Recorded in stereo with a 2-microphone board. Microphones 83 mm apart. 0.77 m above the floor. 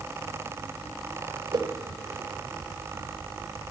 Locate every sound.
1.5 s a whoosh: 70° right (ahead or behind), 1.7 m